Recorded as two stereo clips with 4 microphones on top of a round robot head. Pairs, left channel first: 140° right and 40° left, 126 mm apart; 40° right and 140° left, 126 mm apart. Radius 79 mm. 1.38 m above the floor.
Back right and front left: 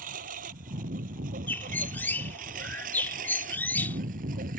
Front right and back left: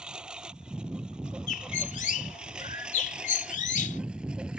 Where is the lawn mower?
55° left.